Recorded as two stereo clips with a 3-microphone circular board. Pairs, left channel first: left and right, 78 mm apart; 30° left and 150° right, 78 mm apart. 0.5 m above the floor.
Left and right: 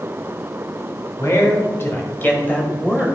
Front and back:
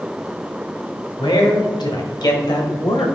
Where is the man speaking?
40° left, 3 m; by 3.1 s 15° left, 2 m.